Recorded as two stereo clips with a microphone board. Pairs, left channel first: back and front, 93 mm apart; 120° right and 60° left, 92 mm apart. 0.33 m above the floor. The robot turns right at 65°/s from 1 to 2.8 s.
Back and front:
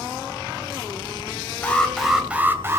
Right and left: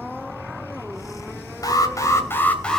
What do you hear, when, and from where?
1.6 s an alarm: 115° right, 2.5 m; by 2.8 s 35° right, 2.5 m